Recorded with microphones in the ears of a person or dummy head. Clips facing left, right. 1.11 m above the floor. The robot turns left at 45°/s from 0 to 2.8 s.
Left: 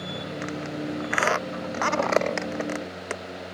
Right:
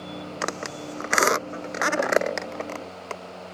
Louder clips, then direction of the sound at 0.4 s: Left 2 dB; 85° right.